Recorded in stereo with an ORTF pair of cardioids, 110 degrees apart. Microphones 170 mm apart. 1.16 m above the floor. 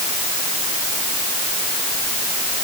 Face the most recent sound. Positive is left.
No sound to turn to.